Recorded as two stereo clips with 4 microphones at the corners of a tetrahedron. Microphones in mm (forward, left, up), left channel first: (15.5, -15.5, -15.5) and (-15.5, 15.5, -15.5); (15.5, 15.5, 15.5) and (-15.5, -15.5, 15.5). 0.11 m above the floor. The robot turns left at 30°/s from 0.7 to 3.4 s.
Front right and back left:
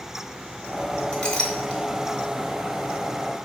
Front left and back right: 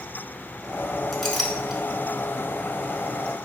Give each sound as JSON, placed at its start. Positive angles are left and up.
{"t": 1.1, "sound": "a clink", "azimuth_deg": -35, "distance_m": 0.8}